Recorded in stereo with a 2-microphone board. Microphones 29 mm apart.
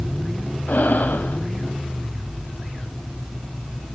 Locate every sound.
0.7 s breathing: 75° left (ahead or behind), 1.3 m